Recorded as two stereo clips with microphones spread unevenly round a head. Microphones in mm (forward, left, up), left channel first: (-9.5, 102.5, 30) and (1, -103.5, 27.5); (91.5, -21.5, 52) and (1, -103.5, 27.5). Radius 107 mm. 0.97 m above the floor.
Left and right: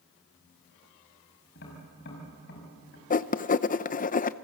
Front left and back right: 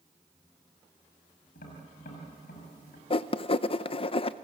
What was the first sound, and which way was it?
Tapping, 50° left.